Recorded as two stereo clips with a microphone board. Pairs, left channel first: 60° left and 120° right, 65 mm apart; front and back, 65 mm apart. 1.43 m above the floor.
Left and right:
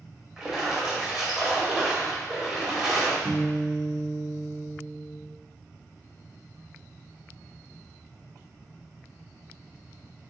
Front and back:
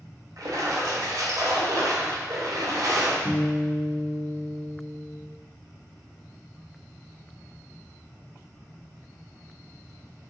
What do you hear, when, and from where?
0.4 s a splash: 160° left, 0.6 m
3.2 s a guitar: 40° right, 0.8 m